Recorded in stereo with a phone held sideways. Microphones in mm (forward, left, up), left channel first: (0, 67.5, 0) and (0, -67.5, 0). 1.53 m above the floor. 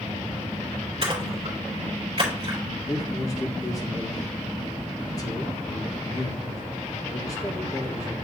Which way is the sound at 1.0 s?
45° right (ahead or behind).